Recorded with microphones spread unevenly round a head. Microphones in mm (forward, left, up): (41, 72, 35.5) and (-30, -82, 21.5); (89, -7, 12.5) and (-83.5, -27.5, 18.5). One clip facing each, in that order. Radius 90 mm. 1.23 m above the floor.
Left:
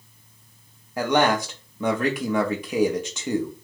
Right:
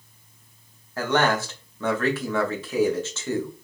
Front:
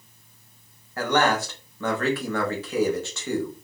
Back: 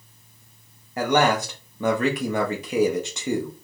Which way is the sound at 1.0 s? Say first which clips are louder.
Left 2 dB, back 2 dB; 130° left.